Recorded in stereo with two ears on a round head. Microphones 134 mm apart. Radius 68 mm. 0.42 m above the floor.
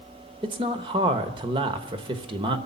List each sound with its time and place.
0.4 s a man speaking: 35° right (ahead or behind), 1.0 m